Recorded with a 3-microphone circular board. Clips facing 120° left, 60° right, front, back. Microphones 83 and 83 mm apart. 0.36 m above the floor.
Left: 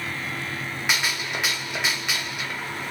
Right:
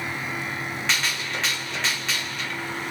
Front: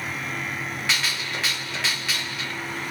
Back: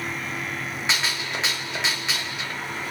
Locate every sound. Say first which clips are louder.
0.9 s a gunshot: left 2 dB, back 2 dB; 165° left, 1.2 m